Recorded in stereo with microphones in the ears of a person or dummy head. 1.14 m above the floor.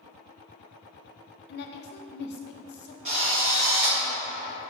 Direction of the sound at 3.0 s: 30° right (ahead or behind).